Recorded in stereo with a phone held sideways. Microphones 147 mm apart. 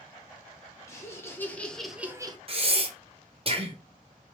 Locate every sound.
0.9 s laughter: 20° left (ahead or behind), 1.6 m; by 2.4 s 30° right (ahead or behind), 0.6 m
2.5 s breathing: 40° right (ahead or behind), 0.8 m